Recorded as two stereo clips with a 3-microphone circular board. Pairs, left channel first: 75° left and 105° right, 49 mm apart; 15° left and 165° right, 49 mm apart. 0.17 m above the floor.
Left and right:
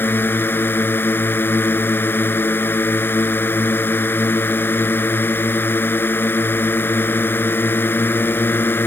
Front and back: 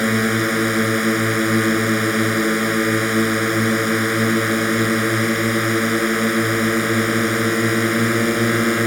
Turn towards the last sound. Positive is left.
turn(degrees=105)